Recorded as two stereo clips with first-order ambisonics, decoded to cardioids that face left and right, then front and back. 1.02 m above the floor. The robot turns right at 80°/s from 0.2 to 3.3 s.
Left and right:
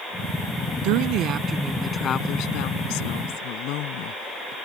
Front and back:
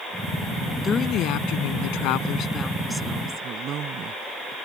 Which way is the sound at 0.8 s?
75° right.